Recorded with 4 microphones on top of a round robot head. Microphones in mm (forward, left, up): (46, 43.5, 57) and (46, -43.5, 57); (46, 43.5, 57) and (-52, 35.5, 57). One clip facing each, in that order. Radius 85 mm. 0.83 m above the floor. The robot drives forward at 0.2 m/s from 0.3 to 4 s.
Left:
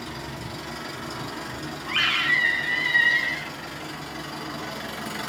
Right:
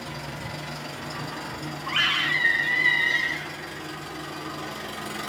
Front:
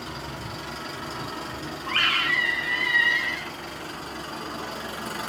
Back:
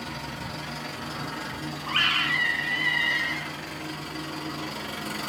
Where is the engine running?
135° right, 1.3 m; by 5.3 s 150° right, 1.9 m.